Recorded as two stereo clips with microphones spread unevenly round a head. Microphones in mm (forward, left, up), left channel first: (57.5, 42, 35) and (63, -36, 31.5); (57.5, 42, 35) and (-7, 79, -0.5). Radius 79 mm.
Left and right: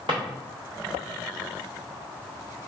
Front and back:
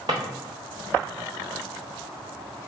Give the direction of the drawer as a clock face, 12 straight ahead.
5 o'clock.